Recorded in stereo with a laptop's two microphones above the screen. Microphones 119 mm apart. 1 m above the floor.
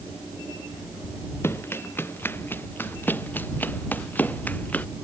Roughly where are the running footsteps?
Centre.